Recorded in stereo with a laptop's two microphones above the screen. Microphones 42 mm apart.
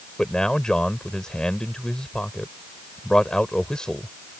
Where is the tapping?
No tapping in this recording.